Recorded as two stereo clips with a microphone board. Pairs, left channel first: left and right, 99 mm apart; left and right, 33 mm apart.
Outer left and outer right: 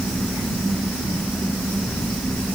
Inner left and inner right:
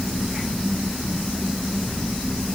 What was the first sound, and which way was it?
Only background noise.